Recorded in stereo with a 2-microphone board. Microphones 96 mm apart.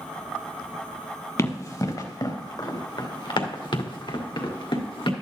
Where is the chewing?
No chewing in this recording.